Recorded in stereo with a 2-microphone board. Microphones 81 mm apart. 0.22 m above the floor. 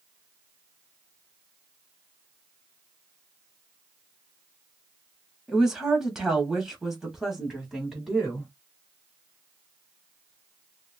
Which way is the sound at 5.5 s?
5° right (ahead or behind).